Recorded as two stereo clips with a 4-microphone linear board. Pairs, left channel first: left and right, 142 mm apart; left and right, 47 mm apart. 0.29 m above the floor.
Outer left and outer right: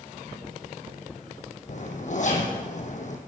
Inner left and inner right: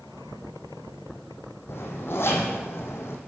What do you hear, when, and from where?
1.7 s a zipper: 60° left (ahead or behind), 2 m